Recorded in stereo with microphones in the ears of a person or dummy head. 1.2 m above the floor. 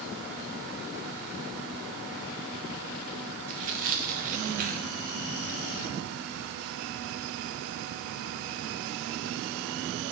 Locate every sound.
3.5 s tearing paper: 40° right (ahead or behind), 0.7 m